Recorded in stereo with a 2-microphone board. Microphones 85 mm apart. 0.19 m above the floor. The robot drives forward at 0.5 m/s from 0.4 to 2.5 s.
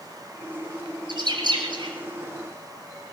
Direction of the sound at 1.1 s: 60° right (ahead or behind).